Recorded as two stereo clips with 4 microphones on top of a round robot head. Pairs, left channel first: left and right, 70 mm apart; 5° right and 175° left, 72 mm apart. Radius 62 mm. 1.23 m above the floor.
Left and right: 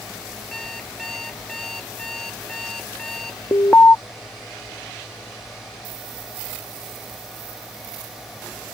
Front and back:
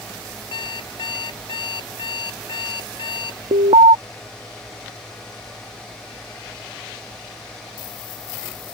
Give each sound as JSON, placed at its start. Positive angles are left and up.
{"t": 0.5, "sound": "an alarm clock", "azimuth_deg": 5}
{"t": 3.5, "sound": "an alarm", "azimuth_deg": 160}